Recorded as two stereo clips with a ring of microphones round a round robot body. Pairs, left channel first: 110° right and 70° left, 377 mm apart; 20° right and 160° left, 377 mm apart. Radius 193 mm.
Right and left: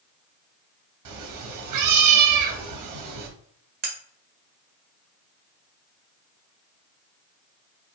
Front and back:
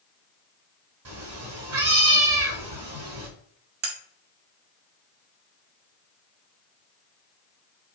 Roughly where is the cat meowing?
Left.